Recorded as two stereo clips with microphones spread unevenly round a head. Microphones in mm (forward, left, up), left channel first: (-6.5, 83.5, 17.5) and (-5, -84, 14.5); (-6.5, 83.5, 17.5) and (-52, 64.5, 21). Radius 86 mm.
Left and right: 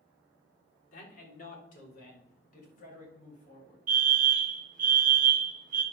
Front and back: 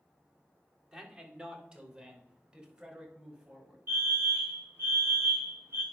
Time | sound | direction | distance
0.9 | a man speaking | 130° left | 3.5 m
3.9 | a fire alarm | 115° right | 1.6 m